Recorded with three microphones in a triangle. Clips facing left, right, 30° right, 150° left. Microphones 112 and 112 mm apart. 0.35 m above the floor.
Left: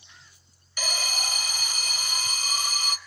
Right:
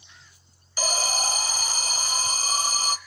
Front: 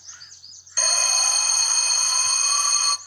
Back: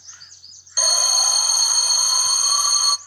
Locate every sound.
0.8 s an alarm: 135° right, 0.9 m